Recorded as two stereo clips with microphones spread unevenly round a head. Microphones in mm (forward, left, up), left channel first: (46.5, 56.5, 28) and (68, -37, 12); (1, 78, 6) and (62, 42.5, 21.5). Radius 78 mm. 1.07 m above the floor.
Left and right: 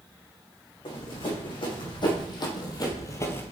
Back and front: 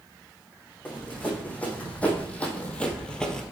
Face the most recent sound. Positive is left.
turn(degrees=60)